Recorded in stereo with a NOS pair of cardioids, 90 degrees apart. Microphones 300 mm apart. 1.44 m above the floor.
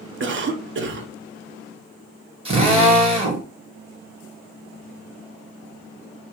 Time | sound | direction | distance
0.2 | a cough | 40° right | 0.7 m
2.5 | a drill | 20° right | 1.0 m